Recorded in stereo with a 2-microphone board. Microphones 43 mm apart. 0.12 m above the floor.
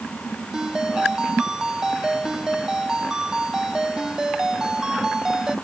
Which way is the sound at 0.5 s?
15° right (ahead or behind).